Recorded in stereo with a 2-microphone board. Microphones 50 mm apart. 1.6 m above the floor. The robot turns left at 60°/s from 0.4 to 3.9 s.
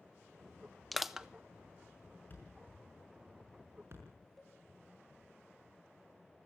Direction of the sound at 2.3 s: 40° left (ahead or behind).